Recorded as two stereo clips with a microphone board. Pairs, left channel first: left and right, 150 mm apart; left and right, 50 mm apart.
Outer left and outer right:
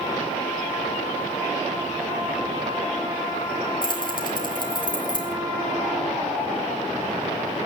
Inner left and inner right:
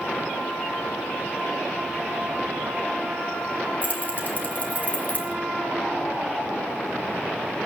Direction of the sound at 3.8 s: 35° left (ahead or behind).